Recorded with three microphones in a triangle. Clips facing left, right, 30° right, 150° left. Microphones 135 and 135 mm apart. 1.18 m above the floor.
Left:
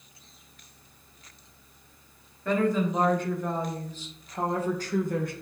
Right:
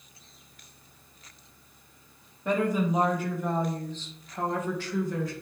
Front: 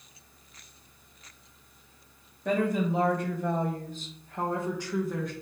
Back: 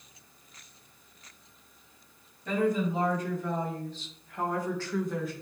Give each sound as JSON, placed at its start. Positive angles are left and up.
{"t": 2.5, "sound": "a woman speaking", "azimuth_deg": -15, "distance_m": 2.5}